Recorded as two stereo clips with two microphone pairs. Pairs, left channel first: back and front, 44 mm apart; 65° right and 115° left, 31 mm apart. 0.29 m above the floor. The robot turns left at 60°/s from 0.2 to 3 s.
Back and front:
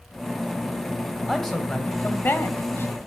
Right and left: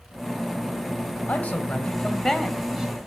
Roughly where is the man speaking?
Right.